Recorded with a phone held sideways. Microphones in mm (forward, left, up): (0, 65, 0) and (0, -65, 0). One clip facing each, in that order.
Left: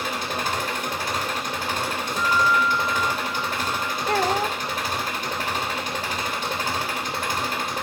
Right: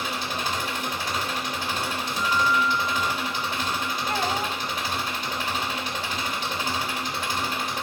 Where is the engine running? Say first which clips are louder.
Left 2 dB; 45° left (ahead or behind), 3 m.